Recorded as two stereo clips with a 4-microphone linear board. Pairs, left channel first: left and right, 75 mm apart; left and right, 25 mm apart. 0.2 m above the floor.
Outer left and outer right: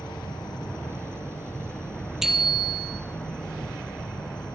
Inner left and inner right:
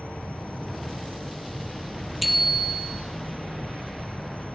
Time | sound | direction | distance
0.0 | an insect | 75° left (ahead or behind) | 7 m
2.2 | a bicycle bell | 5° right (ahead or behind) | 4 m